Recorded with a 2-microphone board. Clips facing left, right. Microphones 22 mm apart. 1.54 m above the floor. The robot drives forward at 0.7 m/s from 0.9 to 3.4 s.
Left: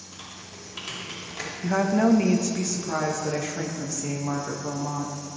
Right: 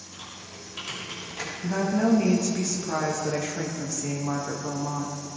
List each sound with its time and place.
0.1 s typing on a keyboard: 10° left (ahead or behind), 4.5 m
1.6 s a woman speaking: 40° left (ahead or behind), 1.3 m; by 5.1 s 20° left (ahead or behind), 2.5 m